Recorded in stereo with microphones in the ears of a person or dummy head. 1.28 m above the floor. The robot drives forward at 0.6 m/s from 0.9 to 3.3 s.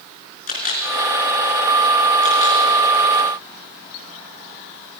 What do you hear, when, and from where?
0.5 s a camera shutter: 45° left (ahead or behind), 5.5 m; by 2.6 s 40° left (ahead or behind), 6 m